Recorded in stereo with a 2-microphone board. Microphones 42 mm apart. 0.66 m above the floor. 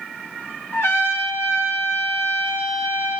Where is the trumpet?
75° left (ahead or behind), 5.5 m.